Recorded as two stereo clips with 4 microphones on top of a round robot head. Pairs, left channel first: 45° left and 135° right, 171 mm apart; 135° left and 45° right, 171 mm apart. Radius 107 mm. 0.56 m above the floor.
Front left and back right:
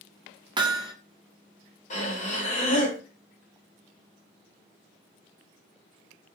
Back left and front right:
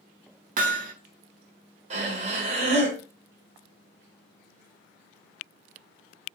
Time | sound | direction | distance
0.6 | hammering | 75° right | 0.8 m
1.9 | breathing | straight ahead | 1.7 m